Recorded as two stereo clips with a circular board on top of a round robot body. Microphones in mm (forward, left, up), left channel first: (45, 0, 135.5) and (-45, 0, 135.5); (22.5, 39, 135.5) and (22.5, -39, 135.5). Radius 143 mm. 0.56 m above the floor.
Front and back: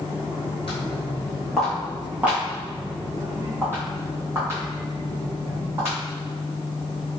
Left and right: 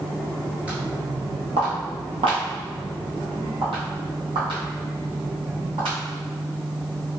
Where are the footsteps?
20° right, 0.6 m; by 6.0 s 120° right, 2.5 m.